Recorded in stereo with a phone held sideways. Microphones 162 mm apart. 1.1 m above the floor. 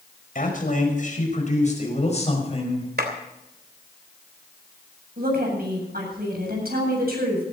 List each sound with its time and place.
0.3 s a man speaking: 60° left (ahead or behind), 5.5 m; by 2.9 s 35° left (ahead or behind), 6 m
3.0 s a clap: 80° right, 3 m
5.2 s a woman speaking: 70° right (ahead or behind), 8 m